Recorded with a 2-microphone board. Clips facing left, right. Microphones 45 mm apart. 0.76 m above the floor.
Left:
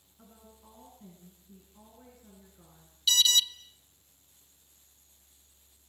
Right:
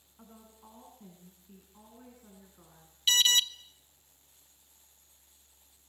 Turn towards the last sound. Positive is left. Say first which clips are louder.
# even
turn(degrees=-40)  # may be behind; listen again after turning